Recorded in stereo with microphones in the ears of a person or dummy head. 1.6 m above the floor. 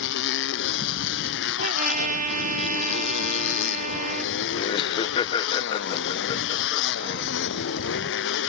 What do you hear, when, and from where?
0.0 s a motorcycle: 75° left (ahead or behind)
1.6 s a trumpet: 40° right (ahead or behind)
4.5 s laughter: 25° left (ahead or behind)